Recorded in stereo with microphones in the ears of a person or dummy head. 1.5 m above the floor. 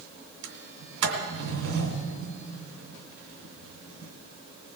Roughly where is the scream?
I don't hear a scream.